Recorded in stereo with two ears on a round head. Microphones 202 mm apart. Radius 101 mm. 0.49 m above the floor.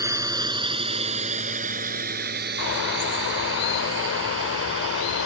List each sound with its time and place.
0.0 s a drone: 15° right (ahead or behind); by 5.3 s 70° right (ahead or behind)
2.6 s a bird: 55° left (ahead or behind)